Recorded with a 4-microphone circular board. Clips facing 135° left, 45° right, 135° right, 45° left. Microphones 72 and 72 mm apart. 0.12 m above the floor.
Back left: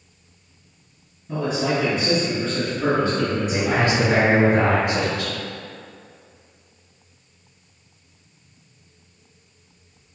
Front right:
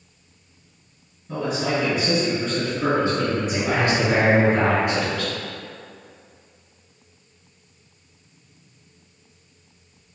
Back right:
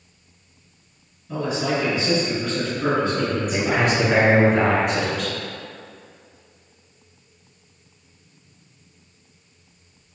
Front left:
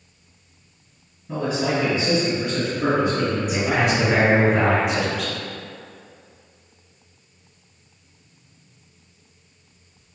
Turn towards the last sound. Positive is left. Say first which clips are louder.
# back left 2 dB, back right 1 dB
turn(degrees=130)